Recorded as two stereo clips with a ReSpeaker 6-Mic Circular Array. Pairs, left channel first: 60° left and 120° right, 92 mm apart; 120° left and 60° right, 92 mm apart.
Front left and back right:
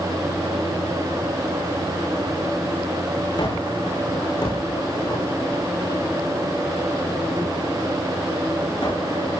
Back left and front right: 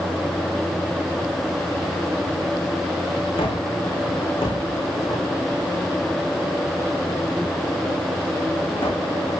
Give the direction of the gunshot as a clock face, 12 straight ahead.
9 o'clock.